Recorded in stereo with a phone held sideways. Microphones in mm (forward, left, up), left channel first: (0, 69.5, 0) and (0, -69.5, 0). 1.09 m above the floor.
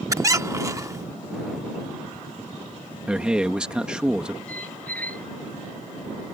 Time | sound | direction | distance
0.1 | a squeak | 25° right (ahead or behind) | ?
3.1 | a man speaking | 5° right (ahead or behind) | ?
4.5 | a squeak | 10° left (ahead or behind) | ?